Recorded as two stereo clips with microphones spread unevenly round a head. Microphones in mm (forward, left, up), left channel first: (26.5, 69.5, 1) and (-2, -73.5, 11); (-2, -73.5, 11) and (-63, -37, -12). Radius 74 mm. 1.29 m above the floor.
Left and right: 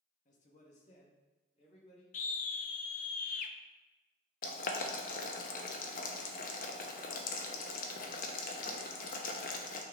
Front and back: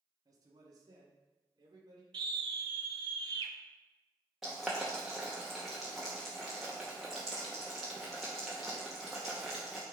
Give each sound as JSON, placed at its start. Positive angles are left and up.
{"t": 0.2, "sound": "a man speaking", "azimuth_deg": 115, "distance_m": 1.2}
{"t": 2.1, "sound": "a scream", "azimuth_deg": 120, "distance_m": 0.7}
{"t": 4.4, "sound": "boiling", "azimuth_deg": 50, "distance_m": 0.9}